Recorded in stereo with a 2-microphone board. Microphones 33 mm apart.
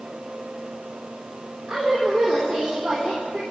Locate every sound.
1.7 s a woman speaking: centre (ahead or behind), 4.5 m